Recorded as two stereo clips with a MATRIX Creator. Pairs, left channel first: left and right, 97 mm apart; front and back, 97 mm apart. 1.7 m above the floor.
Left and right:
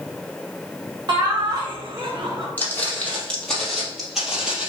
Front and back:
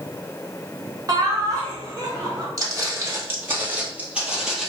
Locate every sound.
1.1 s laughter: 130° right, 1.7 m
2.6 s footsteps: 150° left, 2 m; by 4.7 s 95° right, 1.7 m